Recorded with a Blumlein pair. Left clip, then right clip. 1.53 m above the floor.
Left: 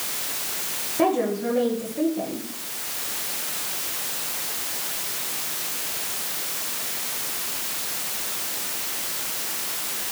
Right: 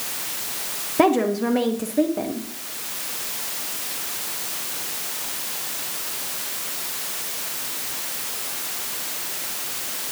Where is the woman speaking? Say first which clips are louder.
Right 4 dB; 25° right, 1.6 m.